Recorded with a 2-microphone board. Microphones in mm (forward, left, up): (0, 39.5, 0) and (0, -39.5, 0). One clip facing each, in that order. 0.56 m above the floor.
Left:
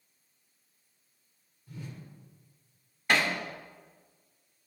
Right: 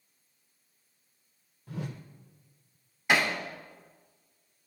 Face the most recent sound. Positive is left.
turn(degrees=-10)  # may be behind; listen again after turning